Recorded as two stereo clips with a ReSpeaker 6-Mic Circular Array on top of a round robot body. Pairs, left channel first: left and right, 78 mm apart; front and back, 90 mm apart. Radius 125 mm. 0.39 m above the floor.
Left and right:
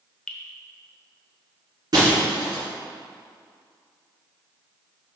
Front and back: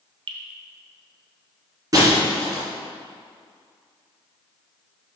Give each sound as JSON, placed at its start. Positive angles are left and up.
{"t": 0.3, "sound": "dripping", "azimuth_deg": 170, "distance_m": 1.0}
{"t": 1.9, "sound": "breaking glass", "azimuth_deg": -125, "distance_m": 3.0}